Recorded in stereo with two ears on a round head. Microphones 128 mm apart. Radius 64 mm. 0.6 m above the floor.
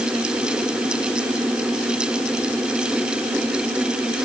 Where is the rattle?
I don't hear a rattle.